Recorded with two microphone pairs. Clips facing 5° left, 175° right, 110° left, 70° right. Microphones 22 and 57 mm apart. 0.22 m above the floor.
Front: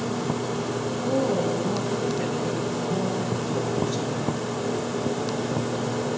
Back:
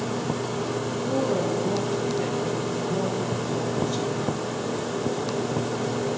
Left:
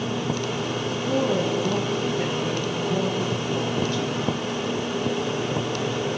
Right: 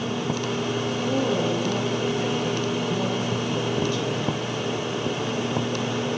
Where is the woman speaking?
75° left, 4 m.